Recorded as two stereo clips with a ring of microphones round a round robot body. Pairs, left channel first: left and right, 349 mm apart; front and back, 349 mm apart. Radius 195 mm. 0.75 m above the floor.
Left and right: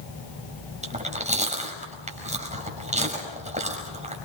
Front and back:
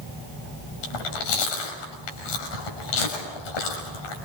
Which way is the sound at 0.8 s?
20° right.